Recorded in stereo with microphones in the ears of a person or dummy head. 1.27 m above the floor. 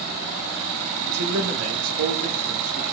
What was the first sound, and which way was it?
A man speaking, 80° right.